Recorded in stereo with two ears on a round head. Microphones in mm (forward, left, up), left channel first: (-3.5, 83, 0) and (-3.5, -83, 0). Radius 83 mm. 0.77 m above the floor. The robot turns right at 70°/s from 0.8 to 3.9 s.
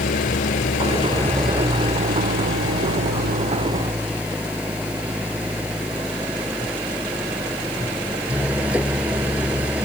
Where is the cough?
No cough in this recording.